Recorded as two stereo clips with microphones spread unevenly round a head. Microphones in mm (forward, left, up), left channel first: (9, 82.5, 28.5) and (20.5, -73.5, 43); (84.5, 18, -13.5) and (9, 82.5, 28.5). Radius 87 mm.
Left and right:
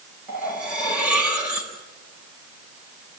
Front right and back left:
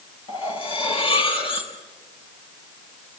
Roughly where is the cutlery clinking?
Ahead.